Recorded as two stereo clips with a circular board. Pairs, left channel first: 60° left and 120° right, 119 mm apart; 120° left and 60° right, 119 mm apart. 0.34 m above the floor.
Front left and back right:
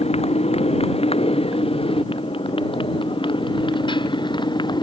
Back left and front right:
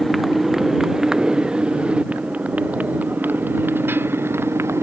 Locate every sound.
0.0 s a motorcycle: 30° left; by 4.8 s 10° left